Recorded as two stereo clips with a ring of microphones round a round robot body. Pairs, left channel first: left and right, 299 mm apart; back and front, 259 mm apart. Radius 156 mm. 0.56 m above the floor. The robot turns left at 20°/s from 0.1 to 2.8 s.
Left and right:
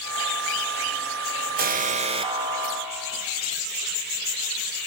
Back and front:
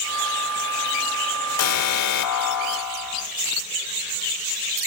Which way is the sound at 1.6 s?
150° right.